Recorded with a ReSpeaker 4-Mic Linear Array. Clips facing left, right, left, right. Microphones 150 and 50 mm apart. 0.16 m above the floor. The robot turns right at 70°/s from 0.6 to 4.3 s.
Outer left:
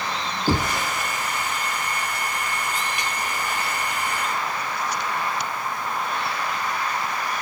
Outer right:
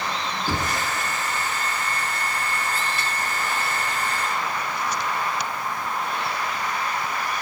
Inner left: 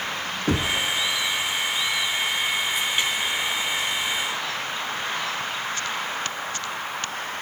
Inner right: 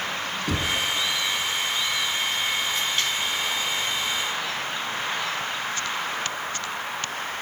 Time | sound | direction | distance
0.5 | knocking | 35° left (ahead or behind) | 1.0 m